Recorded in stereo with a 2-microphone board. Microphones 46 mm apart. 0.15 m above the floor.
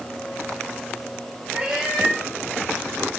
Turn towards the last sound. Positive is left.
turn(degrees=-20)  # may be behind; listen again after turning